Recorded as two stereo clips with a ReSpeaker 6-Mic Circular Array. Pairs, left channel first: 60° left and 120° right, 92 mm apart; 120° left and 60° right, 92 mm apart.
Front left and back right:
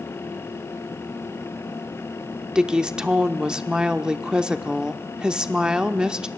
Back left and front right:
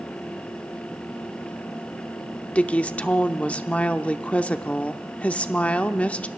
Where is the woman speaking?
170° left, 0.7 m.